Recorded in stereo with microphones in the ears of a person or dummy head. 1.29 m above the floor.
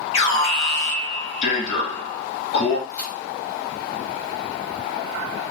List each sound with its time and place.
0.1 s an alarm: 35° left (ahead or behind), 1.3 m
2.9 s a crack: 10° left (ahead or behind), 1.4 m